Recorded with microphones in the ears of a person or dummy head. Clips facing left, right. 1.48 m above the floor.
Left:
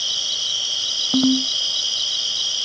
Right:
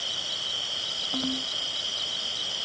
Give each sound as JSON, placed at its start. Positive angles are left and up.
{"t": 0.0, "sound": "an insect", "side_deg": 65}
{"t": 1.1, "sound": "a ringtone", "side_deg": 65}